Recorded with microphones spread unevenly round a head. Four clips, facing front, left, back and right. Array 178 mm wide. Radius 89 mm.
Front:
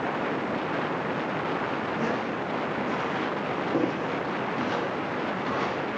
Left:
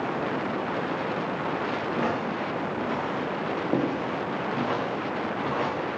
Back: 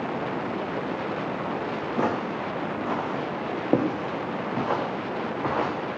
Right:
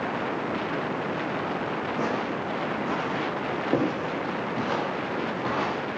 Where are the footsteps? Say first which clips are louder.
Even, back 2 dB; 175° right, 4.5 m; by 5.8 s 170° right, 6 m.